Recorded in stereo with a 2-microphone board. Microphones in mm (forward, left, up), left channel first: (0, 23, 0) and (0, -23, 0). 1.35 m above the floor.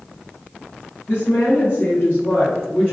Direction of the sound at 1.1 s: 65° left (ahead or behind).